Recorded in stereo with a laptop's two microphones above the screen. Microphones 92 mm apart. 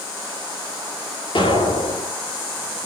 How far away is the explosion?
About 4 m.